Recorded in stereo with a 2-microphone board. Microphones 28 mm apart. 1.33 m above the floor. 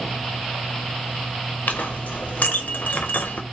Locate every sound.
1.7 s a clink: 70° left (ahead or behind), 0.6 m